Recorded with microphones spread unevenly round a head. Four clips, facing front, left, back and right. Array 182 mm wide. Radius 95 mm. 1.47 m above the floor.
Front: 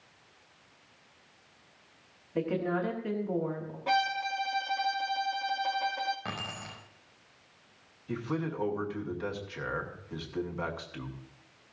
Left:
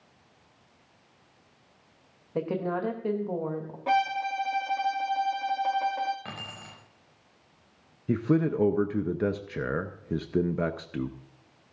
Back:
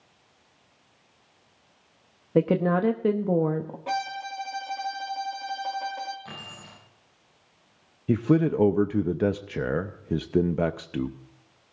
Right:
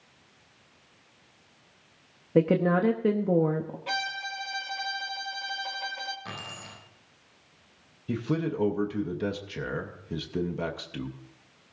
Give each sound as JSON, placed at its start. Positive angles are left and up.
{"t": 2.4, "sound": "a woman speaking", "azimuth_deg": -145, "distance_m": 0.8}
{"t": 3.9, "sound": "a violin", "azimuth_deg": 90, "distance_m": 1.0}
{"t": 6.2, "sound": "keys jangling", "azimuth_deg": 10, "distance_m": 6.5}
{"t": 8.1, "sound": "a man speaking", "azimuth_deg": 160, "distance_m": 0.7}